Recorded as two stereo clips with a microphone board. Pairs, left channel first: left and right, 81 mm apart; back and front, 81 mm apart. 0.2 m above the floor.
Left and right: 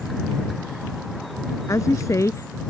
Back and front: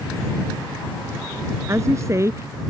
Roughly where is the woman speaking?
Ahead left.